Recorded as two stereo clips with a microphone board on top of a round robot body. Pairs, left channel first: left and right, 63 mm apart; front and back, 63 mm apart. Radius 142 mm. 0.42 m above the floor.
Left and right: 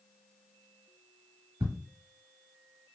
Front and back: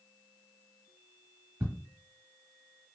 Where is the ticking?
125° right, 1.6 m.